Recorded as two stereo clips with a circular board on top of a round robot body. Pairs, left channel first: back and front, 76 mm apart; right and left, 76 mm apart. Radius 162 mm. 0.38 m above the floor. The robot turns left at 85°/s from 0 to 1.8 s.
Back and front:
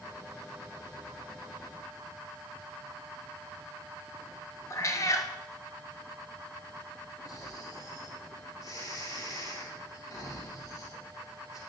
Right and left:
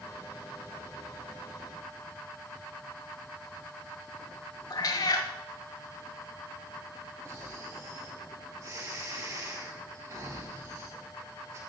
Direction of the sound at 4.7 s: 130° right.